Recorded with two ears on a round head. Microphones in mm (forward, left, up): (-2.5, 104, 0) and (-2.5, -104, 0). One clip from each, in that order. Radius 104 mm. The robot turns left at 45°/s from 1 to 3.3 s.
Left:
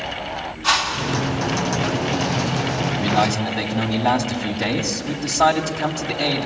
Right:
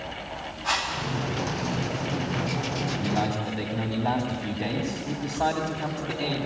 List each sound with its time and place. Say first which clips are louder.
0.6 s a whoosh: left 7 dB; 70° left (ahead or behind), 3 m; by 1.2 s 80° left, 3 m
3.0 s a man speaking: left 10 dB; 55° left (ahead or behind), 2.5 m; by 6.5 s 70° left (ahead or behind), 2.5 m